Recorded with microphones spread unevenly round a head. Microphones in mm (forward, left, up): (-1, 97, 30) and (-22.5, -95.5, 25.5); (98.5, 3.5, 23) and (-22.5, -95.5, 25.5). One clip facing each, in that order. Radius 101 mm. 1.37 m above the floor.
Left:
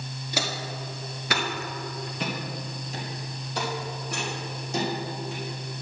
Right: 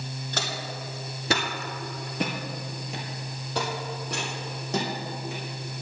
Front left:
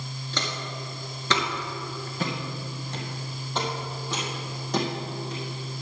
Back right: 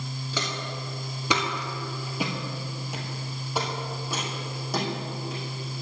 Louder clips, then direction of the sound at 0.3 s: Left 3 dB, even; 150° left.